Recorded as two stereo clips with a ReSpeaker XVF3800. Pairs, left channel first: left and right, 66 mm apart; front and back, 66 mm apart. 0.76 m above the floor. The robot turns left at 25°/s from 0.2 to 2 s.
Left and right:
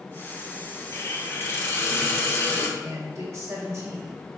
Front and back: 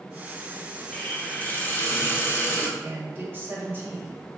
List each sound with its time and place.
0.9 s a hiss: 65° left, 0.8 m; by 2.7 s 40° left, 0.8 m
2.8 s a man speaking: 125° right, 1.1 m